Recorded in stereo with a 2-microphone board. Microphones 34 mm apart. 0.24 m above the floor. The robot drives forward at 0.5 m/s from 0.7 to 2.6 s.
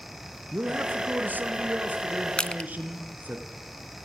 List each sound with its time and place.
0.5 s a man speaking: 65° right (ahead or behind), 3 m; by 3.4 s 55° right (ahead or behind), 3 m
2.4 s crushing: 30° left (ahead or behind), 0.9 m; by 2.7 s 35° left (ahead or behind), 0.8 m